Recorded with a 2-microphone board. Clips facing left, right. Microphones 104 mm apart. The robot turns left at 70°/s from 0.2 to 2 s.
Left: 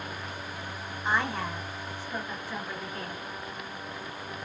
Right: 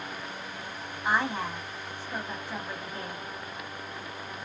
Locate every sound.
1.1 s a woman speaking: 10° right (ahead or behind), 1.1 m; by 3.2 s 20° right (ahead or behind), 1.1 m